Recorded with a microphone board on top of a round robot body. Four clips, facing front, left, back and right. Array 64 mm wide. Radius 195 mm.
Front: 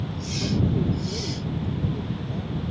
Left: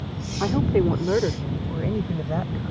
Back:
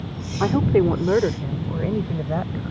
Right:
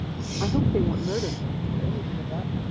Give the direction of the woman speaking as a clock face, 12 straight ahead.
7 o'clock.